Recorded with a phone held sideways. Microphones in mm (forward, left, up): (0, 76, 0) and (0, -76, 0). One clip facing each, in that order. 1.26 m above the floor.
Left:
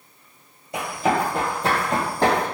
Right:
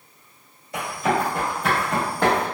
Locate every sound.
0.7 s running footsteps: 25° left (ahead or behind), 1.6 m; by 2.5 s 40° left (ahead or behind), 2.5 m